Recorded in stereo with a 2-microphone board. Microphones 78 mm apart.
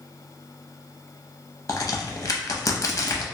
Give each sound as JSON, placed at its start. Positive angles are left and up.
{"t": 1.7, "sound": "a crack", "side_deg": 45, "distance_m": 0.6}